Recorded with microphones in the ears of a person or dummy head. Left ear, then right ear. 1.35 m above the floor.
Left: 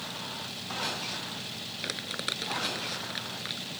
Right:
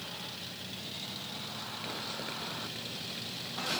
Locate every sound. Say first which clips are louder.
1.8 s crumpling: left 7 dB; 65° left (ahead or behind)